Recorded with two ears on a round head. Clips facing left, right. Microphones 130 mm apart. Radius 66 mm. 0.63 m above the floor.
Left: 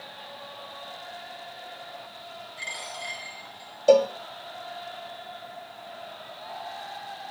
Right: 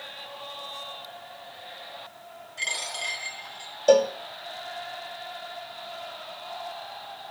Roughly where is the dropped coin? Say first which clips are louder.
Right 3 dB; right.